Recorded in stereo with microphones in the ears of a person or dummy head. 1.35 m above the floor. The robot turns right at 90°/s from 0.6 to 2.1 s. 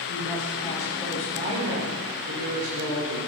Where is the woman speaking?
145° left, 4.5 m; by 3.2 s 80° right, 4.5 m.